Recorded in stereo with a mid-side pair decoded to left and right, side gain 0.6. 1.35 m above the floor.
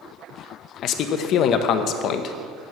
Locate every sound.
0.8 s a man speaking: 60° left, 0.8 m